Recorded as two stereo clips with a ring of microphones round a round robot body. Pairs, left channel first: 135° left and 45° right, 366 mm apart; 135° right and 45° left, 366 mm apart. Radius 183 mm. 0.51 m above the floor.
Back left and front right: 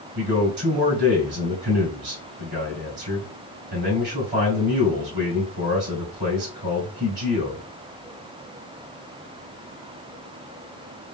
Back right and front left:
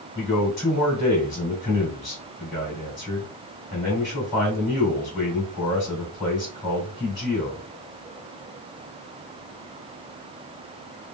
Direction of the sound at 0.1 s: 75° right.